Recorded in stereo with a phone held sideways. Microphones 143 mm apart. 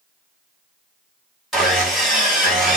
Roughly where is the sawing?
Centre.